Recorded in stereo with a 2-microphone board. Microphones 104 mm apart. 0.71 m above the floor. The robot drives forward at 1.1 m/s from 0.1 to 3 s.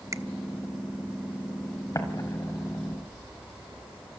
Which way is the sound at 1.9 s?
35° left (ahead or behind).